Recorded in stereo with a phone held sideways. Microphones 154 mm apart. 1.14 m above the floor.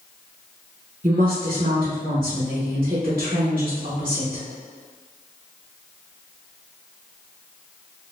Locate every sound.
1.0 s a woman speaking: 60° right (ahead or behind), 0.9 m